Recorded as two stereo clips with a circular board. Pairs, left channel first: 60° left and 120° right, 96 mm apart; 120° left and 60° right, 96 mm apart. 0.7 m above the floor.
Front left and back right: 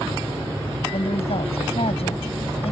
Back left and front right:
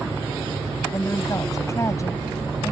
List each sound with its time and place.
0.9 s a woman speaking: 60° left